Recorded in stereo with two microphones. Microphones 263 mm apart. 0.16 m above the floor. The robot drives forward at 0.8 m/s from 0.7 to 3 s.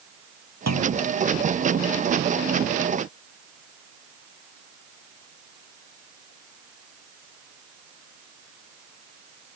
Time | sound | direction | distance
0.7 | a clunk | 80° right | ?